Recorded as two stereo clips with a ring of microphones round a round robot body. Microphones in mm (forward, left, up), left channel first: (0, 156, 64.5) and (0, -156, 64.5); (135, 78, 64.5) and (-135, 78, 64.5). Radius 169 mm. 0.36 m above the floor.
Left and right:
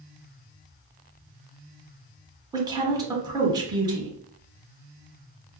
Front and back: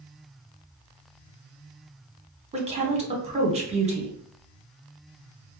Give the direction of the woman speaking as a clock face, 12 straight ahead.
5 o'clock.